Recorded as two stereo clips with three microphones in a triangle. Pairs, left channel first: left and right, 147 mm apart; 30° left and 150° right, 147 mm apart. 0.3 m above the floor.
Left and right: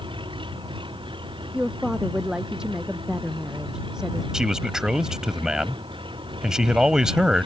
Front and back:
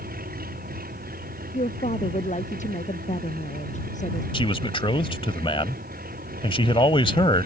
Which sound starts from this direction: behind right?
An engine running, at 0.0 s.